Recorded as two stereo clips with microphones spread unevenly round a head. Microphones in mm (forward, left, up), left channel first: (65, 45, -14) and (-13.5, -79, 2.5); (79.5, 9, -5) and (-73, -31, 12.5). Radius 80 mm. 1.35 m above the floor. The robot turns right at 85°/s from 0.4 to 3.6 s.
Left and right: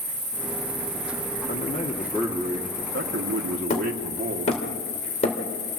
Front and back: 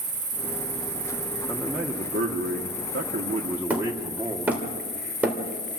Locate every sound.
0.0 s an insect: 170° left, 6 m; by 5.8 s 80° left, 6 m
1.5 s a man speaking: 95° left, 1.3 m; by 4.6 s 85° right, 1.3 m
3.7 s hammering: 115° left, 3 m